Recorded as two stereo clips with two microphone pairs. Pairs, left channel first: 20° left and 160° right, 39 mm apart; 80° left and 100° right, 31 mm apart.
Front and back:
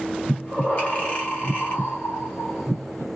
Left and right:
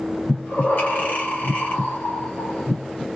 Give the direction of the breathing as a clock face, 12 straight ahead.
10 o'clock.